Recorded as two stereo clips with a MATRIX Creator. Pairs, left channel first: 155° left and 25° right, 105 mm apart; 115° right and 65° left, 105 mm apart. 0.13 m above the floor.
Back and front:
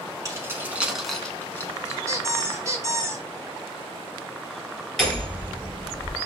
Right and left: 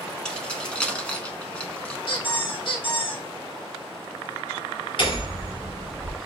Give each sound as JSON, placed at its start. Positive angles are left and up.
{"t": 0.2, "sound": "keys jangling", "azimuth_deg": -40, "distance_m": 0.9}
{"t": 2.1, "sound": "a squeak", "azimuth_deg": -80, "distance_m": 1.1}
{"t": 5.0, "sound": "hammering", "azimuth_deg": -115, "distance_m": 2.0}